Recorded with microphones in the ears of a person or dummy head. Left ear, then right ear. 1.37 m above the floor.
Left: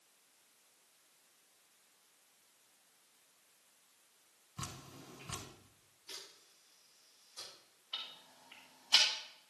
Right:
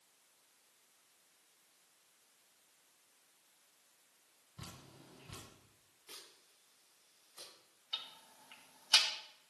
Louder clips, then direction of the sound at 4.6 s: Left 6 dB; 25° left (ahead or behind).